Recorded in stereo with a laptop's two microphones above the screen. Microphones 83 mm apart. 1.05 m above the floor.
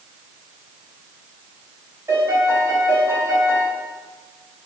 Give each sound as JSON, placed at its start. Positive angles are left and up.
{"t": 2.1, "sound": "a piano", "side_deg": -45, "distance_m": 1.9}